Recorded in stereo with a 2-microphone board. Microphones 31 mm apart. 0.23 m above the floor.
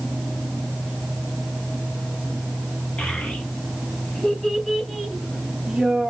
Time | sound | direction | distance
3.0 | a child speaking | 50° left (ahead or behind) | 1.4 m